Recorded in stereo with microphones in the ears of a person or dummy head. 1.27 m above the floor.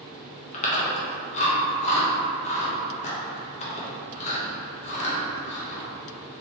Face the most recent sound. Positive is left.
turn(degrees=30)  # may be behind; listen again after turning